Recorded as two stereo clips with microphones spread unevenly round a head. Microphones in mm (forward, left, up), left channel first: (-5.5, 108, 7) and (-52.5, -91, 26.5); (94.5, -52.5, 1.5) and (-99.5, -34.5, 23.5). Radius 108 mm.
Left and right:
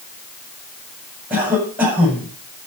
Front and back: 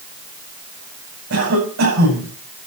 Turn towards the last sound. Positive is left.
turn(degrees=175)